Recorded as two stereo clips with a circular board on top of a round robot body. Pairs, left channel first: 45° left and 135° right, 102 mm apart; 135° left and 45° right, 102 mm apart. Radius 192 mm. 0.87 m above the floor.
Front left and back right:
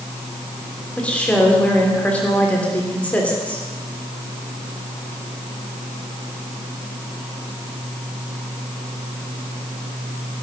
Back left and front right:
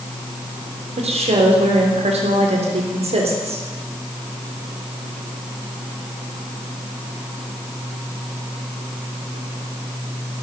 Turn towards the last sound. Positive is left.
turn(degrees=-35)